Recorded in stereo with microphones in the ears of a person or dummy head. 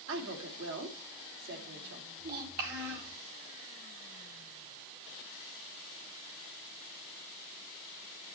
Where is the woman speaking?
75° right (ahead or behind), 2.5 m.